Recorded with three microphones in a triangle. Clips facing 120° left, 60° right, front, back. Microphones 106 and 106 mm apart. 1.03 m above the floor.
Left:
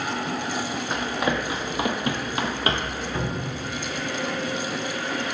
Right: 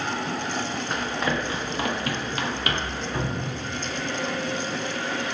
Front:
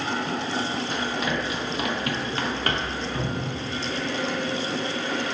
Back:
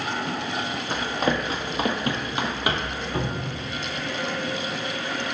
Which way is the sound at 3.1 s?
140° right.